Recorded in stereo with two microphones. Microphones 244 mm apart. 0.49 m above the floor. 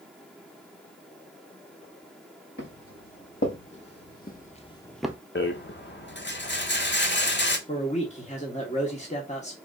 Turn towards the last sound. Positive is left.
turn(degrees=30)  # may be behind; listen again after turning